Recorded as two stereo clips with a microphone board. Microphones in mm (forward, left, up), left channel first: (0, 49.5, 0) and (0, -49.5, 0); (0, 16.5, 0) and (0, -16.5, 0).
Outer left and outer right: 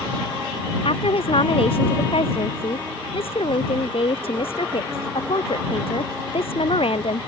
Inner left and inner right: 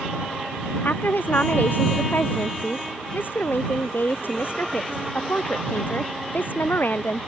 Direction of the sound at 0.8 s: 70° left (ahead or behind).